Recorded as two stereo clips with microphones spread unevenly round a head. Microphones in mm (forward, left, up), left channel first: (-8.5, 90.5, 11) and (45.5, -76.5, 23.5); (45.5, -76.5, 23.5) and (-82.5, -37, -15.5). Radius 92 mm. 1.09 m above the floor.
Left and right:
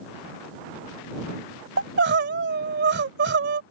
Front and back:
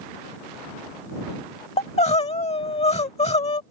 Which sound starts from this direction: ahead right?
Crying, at 1.8 s.